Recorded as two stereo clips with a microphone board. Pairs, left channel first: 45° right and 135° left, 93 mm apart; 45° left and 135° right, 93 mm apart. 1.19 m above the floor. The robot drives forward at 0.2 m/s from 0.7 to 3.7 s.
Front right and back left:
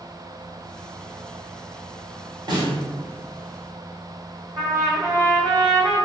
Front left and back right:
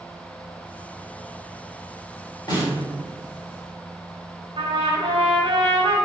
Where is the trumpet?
170° right, 1.2 m.